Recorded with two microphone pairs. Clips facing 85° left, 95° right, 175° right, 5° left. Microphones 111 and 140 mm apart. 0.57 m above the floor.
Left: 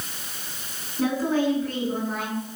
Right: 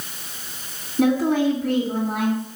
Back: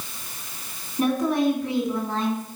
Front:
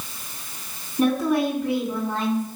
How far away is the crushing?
I don't hear crushing.